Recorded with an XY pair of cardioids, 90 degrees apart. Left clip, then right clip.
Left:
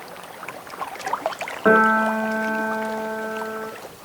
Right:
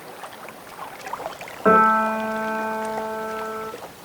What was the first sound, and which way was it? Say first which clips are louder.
A piano: even; 25° left.